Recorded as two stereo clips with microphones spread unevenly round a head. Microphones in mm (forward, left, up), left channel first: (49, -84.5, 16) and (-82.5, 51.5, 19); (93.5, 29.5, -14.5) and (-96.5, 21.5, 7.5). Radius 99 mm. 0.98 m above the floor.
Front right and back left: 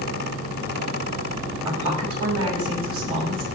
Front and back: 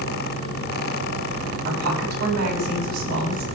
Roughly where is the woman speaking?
Behind left.